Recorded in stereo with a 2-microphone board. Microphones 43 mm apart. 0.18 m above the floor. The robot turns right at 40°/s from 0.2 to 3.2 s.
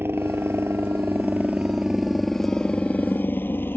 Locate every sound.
0.0 s a helicopter: 60° right (ahead or behind); by 3.8 s 55° left (ahead or behind)